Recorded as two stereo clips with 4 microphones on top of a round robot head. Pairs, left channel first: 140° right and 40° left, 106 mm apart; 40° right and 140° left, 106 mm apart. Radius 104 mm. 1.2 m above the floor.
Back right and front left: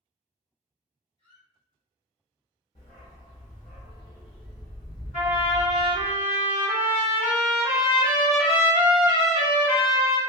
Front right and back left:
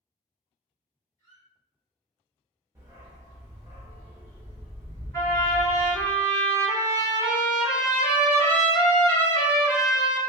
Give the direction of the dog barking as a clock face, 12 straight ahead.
6 o'clock.